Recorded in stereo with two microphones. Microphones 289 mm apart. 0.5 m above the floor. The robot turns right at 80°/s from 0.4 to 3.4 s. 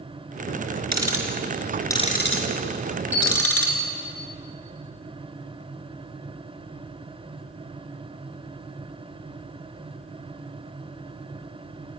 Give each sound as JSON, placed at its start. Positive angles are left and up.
{"t": 0.9, "sound": "ticking", "side_deg": -70, "distance_m": 4.0}
{"t": 3.1, "sound": "an alarm", "side_deg": -5, "distance_m": 6.5}